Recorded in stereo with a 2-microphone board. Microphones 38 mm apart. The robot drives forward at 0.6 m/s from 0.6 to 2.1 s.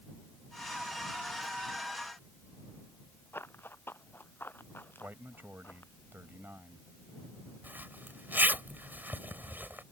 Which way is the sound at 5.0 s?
65° right (ahead or behind).